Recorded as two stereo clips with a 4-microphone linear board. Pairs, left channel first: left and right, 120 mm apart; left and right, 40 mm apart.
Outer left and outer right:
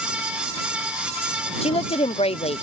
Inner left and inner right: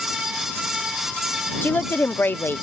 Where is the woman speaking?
55° left (ahead or behind).